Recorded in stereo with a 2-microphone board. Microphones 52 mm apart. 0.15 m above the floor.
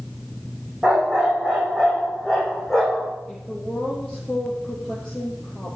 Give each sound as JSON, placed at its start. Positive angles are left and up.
{"t": 0.8, "sound": "a dog barking", "side_deg": -15, "distance_m": 4.0}
{"t": 3.3, "sound": "a woman speaking", "side_deg": 0, "distance_m": 3.5}